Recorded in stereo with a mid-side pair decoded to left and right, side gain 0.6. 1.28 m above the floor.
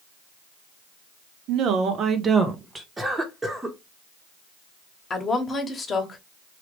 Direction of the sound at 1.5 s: 65° right.